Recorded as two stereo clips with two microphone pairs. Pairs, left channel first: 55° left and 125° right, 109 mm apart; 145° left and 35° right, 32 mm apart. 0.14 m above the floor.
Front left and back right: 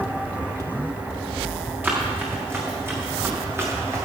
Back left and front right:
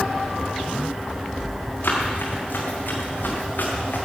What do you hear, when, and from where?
1.8 s running footsteps: 160° left, 6 m; by 4.1 s 170° left, 5 m